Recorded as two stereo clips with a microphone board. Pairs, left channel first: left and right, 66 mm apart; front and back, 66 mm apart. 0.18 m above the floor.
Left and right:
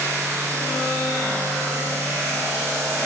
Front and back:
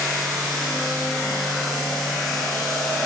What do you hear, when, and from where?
Only background noise.